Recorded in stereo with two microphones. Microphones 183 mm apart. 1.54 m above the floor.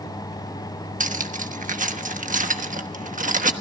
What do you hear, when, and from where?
1.0 s cutlery clinking: 45° right (ahead or behind), 1.1 m